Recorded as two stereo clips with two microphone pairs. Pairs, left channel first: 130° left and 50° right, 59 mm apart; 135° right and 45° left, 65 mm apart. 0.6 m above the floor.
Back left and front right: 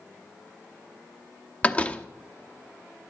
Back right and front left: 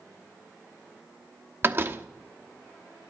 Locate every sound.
1.6 s a door slam: 75° left, 0.9 m